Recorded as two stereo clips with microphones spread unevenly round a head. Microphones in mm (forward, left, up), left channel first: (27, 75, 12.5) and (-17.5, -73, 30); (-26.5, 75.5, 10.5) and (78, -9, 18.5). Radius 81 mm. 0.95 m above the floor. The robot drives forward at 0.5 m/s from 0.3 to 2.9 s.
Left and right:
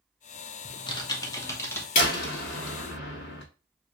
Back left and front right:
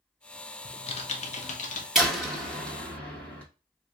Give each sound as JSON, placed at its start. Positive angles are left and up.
{"t": 0.7, "sound": "typing on a keyboard", "azimuth_deg": 110, "distance_m": 0.9}
{"t": 1.9, "sound": "a door slam", "azimuth_deg": 50, "distance_m": 2.0}